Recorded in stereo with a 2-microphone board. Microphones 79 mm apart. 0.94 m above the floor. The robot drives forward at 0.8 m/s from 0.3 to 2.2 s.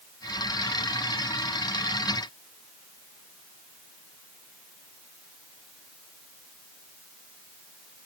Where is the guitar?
I don't hear a guitar.